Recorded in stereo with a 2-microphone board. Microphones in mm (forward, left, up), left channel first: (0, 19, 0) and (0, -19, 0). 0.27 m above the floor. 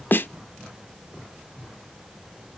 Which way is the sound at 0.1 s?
60° left (ahead or behind).